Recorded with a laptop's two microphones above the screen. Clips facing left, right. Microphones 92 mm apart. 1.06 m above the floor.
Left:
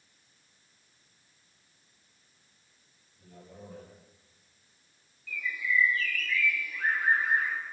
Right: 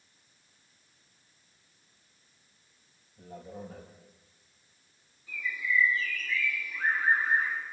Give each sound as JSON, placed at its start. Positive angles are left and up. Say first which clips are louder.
{"t": 3.2, "sound": "a man speaking", "louder": "right 7 dB", "side_deg": -85, "distance_m": 7.0}
{"t": 5.3, "sound": "a bird", "louder": "even", "side_deg": -25, "distance_m": 6.0}